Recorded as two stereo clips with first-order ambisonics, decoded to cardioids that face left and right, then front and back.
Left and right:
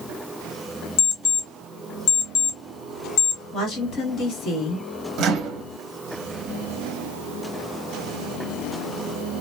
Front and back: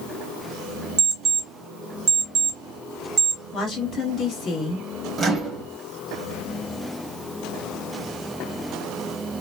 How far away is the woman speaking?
About 1.5 m.